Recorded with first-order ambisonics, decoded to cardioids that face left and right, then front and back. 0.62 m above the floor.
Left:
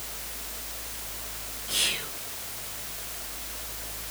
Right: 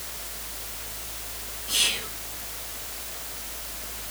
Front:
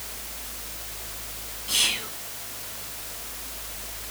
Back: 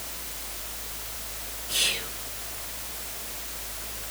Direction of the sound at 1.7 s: 5° right.